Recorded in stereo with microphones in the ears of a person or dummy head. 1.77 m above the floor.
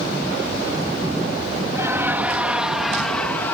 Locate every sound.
1.7 s laughter: 15° right (ahead or behind); by 3.5 s 15° left (ahead or behind)